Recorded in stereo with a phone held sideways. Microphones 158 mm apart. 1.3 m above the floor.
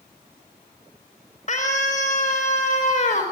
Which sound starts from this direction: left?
A scream, at 1.5 s.